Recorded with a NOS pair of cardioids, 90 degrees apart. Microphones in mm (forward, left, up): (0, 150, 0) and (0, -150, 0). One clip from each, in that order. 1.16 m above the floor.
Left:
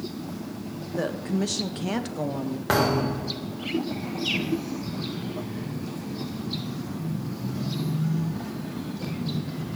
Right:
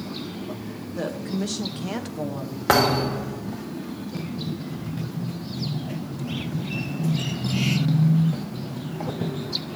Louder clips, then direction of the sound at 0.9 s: Left 1 dB; 10° left.